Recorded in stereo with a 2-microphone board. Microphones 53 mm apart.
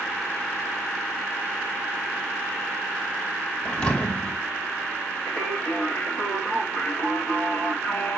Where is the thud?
25° left (ahead or behind), 1.8 m.